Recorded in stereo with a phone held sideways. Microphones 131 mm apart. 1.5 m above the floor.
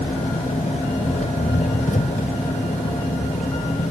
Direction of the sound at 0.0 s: 80° left.